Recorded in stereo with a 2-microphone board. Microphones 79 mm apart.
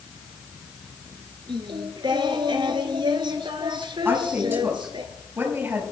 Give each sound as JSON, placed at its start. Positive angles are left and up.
{"t": 1.5, "sound": "singing", "side_deg": -80, "distance_m": 1.1}
{"t": 4.0, "sound": "a woman speaking", "side_deg": -25, "distance_m": 5.0}